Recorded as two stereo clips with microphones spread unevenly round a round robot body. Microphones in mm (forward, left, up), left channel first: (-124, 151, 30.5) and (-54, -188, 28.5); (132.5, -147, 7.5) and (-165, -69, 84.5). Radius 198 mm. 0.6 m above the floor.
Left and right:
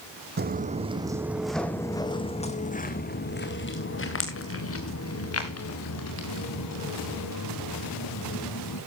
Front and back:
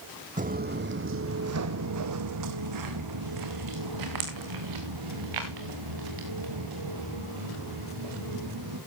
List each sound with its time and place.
0.4 s footsteps: 140° right, 1.3 m; by 8.8 s 140° left, 5 m